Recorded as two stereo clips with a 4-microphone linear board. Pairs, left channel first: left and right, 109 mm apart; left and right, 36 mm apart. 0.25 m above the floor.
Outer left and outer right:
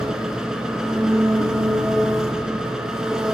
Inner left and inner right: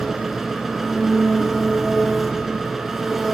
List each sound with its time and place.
0.0 s an engine running: 5° right (ahead or behind), 1.0 m